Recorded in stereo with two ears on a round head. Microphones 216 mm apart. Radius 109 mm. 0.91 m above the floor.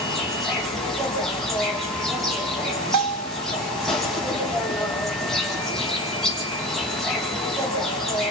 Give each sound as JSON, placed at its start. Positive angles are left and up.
{"t": 0.0, "sound": "an insect", "side_deg": 0, "distance_m": 7.5}
{"t": 2.9, "sound": "a bell", "side_deg": -85, "distance_m": 2.5}